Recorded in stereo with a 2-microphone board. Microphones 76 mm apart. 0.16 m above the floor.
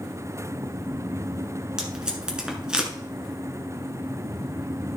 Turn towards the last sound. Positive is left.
turn(degrees=-10)  # may be behind; listen again after turning